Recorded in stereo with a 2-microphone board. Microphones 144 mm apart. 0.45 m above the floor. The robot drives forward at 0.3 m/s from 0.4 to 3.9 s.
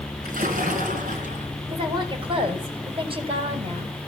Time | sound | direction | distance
0.2 | a splash | 75° right (ahead or behind) | 3 m
1.7 | a woman speaking | 35° right (ahead or behind) | 3 m